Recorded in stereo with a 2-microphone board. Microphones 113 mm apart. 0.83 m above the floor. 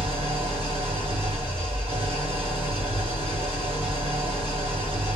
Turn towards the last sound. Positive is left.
turn(degrees=-55)  # may be behind; listen again after turning